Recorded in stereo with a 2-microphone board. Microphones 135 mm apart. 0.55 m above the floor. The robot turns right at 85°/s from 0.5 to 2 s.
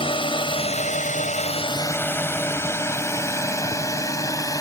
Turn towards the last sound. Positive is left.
turn(degrees=25)  # may be behind; listen again after turning